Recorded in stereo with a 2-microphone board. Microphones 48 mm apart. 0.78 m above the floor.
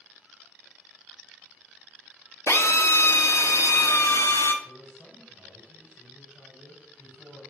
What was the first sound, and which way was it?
A drill, 75° left (ahead or behind).